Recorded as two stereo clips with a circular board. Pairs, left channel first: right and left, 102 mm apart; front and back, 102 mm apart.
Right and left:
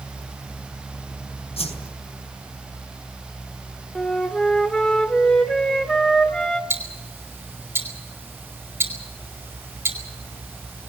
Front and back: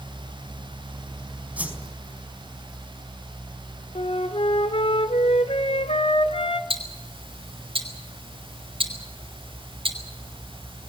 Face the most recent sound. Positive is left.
turn(degrees=155)